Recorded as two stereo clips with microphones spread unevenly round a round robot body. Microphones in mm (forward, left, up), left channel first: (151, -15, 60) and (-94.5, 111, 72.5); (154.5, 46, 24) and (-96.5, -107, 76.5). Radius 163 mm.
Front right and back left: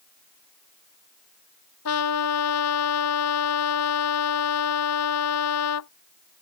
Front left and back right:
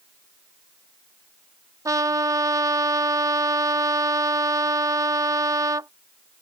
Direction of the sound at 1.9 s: 70° right.